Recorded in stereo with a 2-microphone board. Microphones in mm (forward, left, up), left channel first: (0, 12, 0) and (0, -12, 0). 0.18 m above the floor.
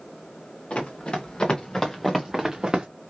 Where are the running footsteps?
50° left (ahead or behind), 1.3 m; by 2.9 s 35° right (ahead or behind), 0.8 m.